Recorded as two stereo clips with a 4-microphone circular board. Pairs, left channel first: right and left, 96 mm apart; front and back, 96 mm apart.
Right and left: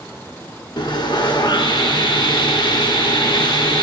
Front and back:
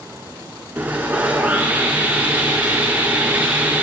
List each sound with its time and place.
0.8 s sawing: 110° right, 1.3 m